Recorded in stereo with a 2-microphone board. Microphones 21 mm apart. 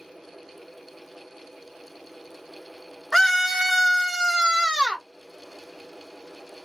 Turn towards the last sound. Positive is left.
turn(degrees=-25)  # may be behind; listen again after turning